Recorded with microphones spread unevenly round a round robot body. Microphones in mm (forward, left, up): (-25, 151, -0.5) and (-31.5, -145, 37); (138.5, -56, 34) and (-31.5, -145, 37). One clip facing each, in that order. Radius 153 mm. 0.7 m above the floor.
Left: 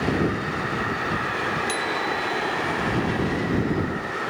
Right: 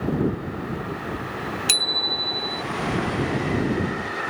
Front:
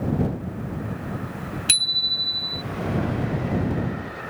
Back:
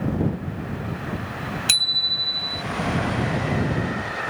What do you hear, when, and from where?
1.7 s a bicycle bell: 120° right